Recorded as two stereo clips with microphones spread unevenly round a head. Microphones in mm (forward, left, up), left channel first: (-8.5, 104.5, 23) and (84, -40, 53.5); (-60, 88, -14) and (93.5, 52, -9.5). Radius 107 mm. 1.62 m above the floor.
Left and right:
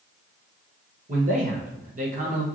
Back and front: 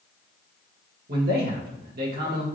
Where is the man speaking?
25° right, 1.4 m.